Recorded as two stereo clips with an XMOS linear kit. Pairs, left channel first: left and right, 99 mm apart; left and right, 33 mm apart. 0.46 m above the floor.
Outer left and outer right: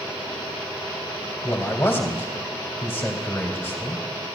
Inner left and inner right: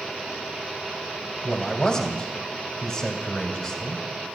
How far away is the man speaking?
About 1.9 m.